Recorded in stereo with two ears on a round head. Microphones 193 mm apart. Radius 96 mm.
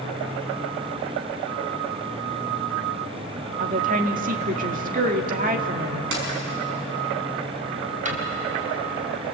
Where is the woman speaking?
40° right (ahead or behind), 1.9 m.